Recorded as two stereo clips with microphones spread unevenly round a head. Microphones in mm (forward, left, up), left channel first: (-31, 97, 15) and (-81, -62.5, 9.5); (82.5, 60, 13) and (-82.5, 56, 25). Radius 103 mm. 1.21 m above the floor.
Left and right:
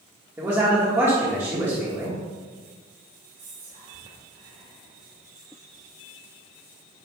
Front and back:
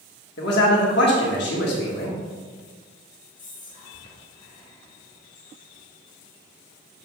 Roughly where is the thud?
No thud in this recording.